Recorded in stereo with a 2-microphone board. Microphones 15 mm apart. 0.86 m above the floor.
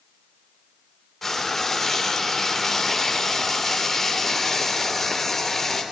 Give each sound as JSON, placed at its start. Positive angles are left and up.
{"t": 1.2, "sound": "frying", "side_deg": 15, "distance_m": 3.0}